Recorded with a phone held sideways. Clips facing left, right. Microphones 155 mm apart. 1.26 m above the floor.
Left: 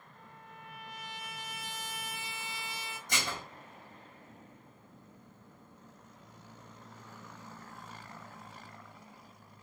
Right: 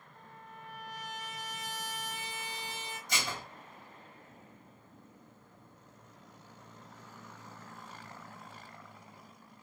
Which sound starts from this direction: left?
Dishes clattering, at 3.1 s.